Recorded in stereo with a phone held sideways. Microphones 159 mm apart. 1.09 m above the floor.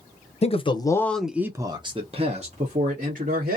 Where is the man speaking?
40° left (ahead or behind), 0.7 m; by 3.6 s 60° right (ahead or behind), 1.5 m.